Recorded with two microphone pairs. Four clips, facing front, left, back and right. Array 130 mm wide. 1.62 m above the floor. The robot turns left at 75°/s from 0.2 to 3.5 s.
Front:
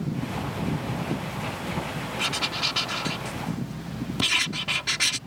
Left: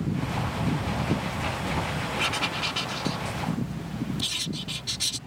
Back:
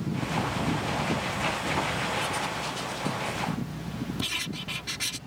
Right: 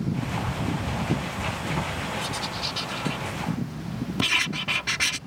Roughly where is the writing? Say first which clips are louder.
Left 2 dB, even; ahead left.